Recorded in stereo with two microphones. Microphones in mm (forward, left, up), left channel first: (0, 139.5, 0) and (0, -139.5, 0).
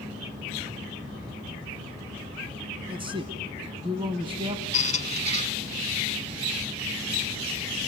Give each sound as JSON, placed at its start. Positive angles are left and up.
{"t": 2.9, "sound": "a man speaking", "side_deg": -20, "distance_m": 1.1}
{"t": 4.7, "sound": "a squeak", "side_deg": 25, "distance_m": 0.7}